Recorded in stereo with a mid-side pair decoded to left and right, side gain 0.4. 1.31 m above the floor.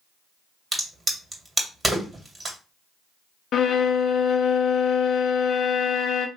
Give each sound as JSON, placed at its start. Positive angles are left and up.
{"t": 0.7, "sound": "a crack", "azimuth_deg": -25, "distance_m": 2.5}
{"t": 3.5, "sound": "a violin", "azimuth_deg": 65, "distance_m": 0.5}